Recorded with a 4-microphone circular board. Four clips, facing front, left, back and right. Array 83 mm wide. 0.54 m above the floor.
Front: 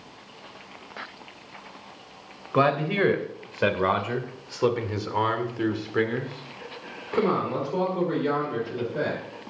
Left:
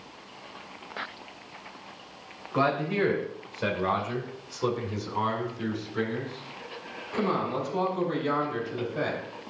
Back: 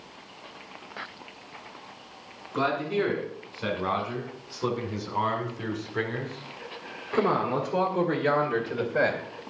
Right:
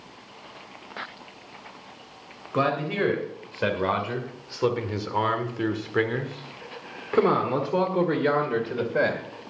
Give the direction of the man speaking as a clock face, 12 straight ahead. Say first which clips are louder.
Right 1 dB, front 4 dB; 12 o'clock.